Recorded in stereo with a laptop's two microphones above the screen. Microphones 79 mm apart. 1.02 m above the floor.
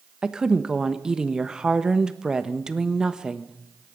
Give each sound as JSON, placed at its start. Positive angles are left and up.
{"t": 0.2, "sound": "a woman speaking", "side_deg": -10, "distance_m": 1.2}